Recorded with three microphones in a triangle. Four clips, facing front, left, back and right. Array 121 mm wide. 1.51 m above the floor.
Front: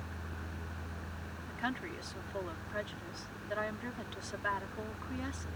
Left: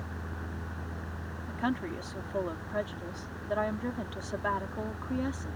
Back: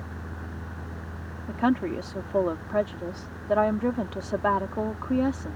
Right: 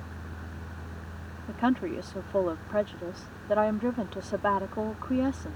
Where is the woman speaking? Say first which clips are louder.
Right 6 dB, back 15 dB; 155° right.